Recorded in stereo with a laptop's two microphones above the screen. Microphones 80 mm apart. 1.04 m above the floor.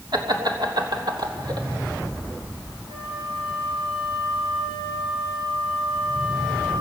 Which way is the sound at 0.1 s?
60° right (ahead or behind).